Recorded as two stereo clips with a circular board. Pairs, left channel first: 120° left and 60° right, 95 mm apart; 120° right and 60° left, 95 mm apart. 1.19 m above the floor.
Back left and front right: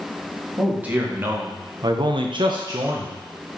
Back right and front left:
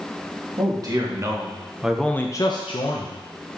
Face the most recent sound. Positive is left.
turn(degrees=-120)